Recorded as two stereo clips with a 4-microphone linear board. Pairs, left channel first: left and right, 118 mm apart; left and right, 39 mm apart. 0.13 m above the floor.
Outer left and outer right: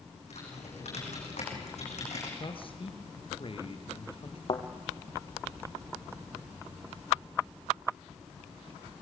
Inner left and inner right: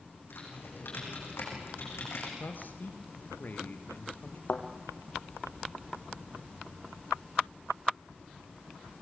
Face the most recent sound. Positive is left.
turn(degrees=45)  # may be behind; listen again after turning